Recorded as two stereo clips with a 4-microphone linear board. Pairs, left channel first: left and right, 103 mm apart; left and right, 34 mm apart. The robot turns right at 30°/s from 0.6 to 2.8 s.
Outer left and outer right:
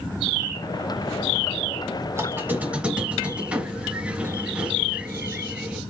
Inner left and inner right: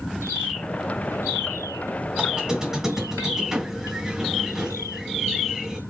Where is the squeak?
30° right (ahead or behind), 1.5 m; by 5.8 s 15° right (ahead or behind), 1.5 m.